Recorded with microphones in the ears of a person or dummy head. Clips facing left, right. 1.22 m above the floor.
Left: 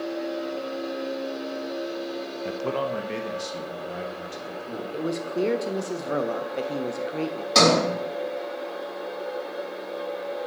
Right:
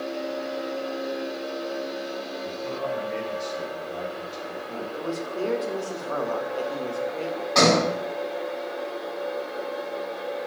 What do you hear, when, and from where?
2.5 s a man speaking: 85° left, 0.5 m; by 4.8 s 80° left, 1.8 m
4.9 s a man speaking: 35° left (ahead or behind), 0.5 m
7.5 s a sliding door: 40° left (ahead or behind), 3.5 m